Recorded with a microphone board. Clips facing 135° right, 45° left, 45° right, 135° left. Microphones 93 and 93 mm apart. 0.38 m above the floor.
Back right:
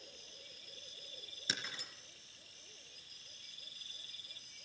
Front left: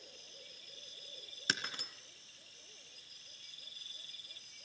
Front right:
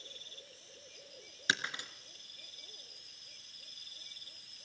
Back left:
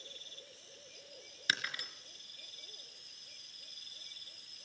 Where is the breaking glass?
20° left, 3 m.